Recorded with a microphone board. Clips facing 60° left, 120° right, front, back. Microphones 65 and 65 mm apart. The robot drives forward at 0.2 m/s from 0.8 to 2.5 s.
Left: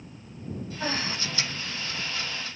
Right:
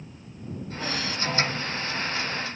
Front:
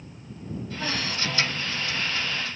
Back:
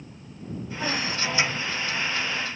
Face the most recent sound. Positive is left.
turn(degrees=135)